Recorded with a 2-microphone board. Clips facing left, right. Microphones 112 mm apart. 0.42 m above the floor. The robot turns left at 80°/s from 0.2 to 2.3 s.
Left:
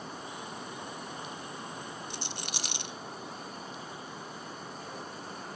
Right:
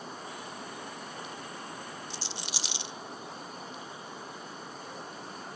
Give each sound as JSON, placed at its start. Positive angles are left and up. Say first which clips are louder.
{"t": 2.1, "sound": "a rattle", "louder": "left 1 dB", "side_deg": 55, "distance_m": 0.5}